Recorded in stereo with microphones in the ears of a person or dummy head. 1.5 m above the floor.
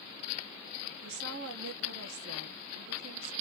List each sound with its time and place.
1.0 s a woman speaking: 80° right, 1.2 m